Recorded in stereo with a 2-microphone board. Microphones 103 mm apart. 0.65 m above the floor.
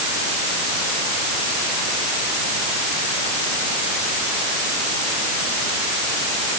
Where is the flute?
No flute in this recording.